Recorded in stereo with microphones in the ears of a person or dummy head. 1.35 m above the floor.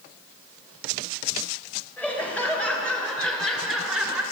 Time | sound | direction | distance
2.0 | laughter | 10° left (ahead or behind) | 3 m